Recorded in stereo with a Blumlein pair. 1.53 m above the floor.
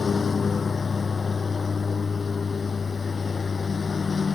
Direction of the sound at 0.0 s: 15° left.